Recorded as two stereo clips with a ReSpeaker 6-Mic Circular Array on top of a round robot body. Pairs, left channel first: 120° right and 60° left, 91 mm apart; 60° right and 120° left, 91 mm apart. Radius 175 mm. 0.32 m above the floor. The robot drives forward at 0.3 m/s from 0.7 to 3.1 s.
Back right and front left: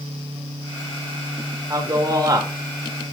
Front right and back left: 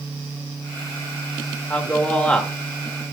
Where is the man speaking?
10° left, 1.6 m; by 2.5 s 15° left, 1.4 m.